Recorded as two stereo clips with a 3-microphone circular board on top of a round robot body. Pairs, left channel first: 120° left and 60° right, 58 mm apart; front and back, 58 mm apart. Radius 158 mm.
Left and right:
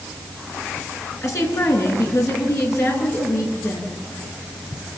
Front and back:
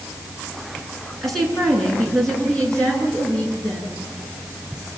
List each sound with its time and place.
1.2 s a woman speaking: 85° left, 6.5 m; by 4.0 s 70° left, 9.5 m